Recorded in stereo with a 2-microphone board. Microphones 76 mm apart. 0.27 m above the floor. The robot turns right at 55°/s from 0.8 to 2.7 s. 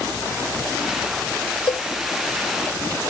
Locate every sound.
1.7 s a cowbell: 75° left (ahead or behind); by 1.9 s 65° left (ahead or behind)